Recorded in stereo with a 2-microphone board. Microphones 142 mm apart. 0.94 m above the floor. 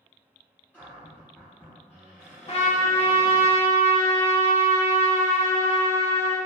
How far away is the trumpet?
About 0.6 m.